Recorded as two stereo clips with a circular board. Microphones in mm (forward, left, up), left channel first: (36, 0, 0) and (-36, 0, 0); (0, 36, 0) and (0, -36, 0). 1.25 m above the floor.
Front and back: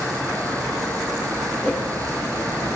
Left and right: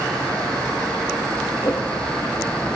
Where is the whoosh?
95° left, 8 m.